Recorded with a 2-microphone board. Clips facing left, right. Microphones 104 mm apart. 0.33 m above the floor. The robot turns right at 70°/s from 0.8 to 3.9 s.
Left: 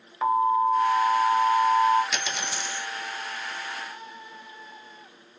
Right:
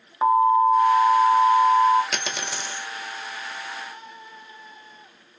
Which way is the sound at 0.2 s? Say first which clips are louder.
Right 5 dB; 40° right.